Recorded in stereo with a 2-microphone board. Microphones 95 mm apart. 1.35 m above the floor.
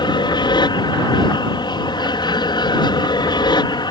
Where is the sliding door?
No sliding door in this recording.